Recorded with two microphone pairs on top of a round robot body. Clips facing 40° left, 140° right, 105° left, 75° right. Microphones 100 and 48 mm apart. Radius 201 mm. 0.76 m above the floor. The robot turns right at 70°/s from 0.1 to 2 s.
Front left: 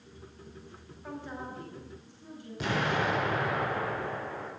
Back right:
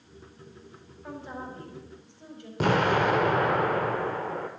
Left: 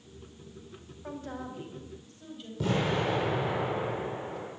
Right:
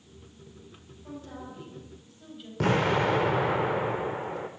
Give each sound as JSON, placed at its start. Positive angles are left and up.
{"t": 1.0, "sound": "a woman speaking", "azimuth_deg": 130, "distance_m": 5.0}
{"t": 2.6, "sound": "an explosion", "azimuth_deg": -100, "distance_m": 0.7}